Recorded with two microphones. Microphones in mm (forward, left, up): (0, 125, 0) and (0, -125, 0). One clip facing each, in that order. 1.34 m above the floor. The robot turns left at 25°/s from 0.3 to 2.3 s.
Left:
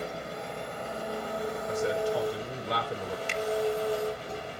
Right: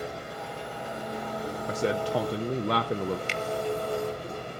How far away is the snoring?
No snoring in this recording.